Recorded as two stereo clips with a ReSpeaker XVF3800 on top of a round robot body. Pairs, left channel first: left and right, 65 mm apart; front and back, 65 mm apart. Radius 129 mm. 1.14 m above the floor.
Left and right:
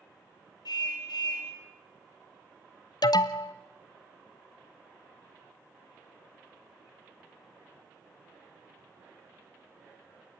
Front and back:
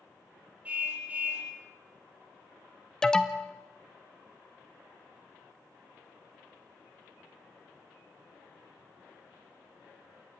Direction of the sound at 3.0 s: 80° left.